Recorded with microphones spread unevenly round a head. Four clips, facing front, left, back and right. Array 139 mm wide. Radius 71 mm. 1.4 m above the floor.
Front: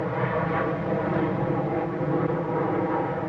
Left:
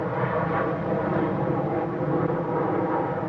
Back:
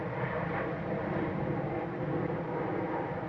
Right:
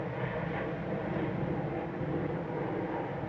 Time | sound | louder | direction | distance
0.0 | an aircraft | left 10 dB, front 8 dB | 40° left | ?